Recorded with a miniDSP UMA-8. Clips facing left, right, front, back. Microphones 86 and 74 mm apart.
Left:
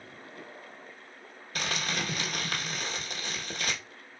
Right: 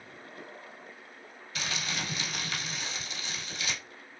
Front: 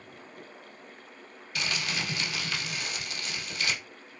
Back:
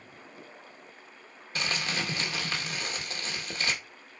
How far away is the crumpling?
About 1.1 m.